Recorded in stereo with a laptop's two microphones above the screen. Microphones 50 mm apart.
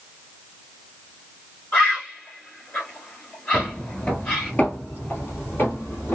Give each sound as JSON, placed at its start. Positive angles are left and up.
{"t": 1.7, "sound": "a bird", "side_deg": 25, "distance_m": 1.9}
{"t": 3.5, "sound": "footsteps", "side_deg": 15, "distance_m": 1.1}